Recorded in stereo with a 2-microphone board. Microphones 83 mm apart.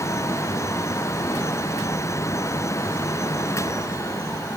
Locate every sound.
Only background noise.